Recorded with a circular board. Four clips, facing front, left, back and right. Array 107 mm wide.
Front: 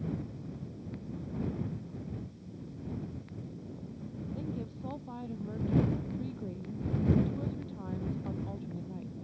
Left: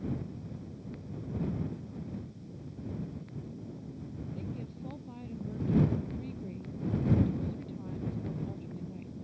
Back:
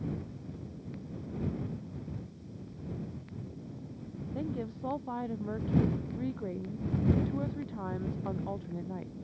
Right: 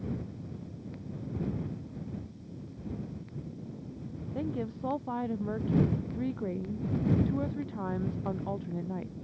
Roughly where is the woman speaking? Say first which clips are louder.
Right 7 dB, back 6 dB; behind right.